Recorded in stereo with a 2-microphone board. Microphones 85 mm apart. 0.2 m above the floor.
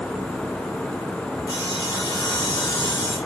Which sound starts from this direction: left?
Sawing, at 1.5 s.